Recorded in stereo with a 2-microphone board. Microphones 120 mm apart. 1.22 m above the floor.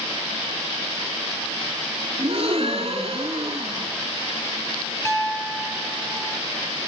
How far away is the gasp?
About 3.5 m.